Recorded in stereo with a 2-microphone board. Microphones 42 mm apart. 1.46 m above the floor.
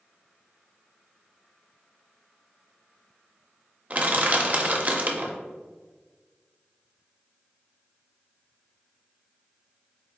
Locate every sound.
3.9 s crushing: 35° right (ahead or behind), 0.5 m